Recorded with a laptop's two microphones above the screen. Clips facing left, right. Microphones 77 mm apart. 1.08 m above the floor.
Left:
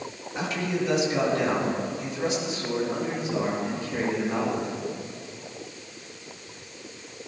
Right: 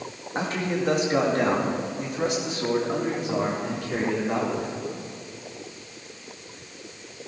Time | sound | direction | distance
0.3 | a man speaking | 40° right (ahead or behind) | 2 m